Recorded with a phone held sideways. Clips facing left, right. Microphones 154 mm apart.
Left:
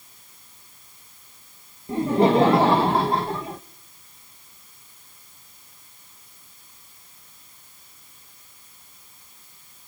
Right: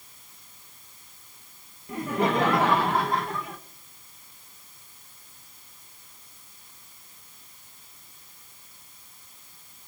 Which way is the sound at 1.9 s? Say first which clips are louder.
Left 7 dB; 30° left (ahead or behind).